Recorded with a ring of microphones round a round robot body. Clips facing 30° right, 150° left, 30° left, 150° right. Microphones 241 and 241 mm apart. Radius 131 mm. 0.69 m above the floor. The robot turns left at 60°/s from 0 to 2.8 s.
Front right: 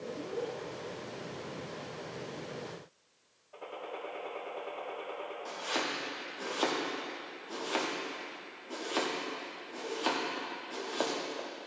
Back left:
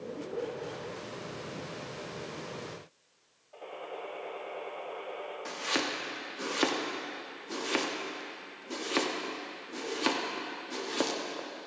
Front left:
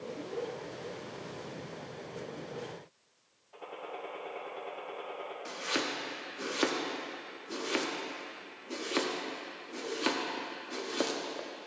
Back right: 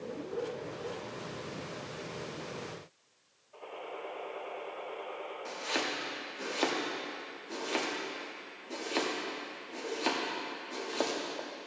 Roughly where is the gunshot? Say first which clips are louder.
Back left 1 dB, even; ahead left.